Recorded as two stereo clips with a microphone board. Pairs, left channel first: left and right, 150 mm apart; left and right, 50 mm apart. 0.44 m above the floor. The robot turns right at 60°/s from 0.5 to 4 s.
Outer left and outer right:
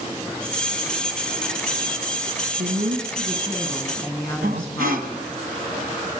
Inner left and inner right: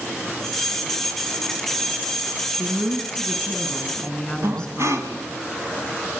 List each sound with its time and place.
2.6 s a woman speaking: 75° right, 4 m; by 5.3 s 10° left, 4 m
4.4 s breathing: 75° right (ahead or behind), 1.9 m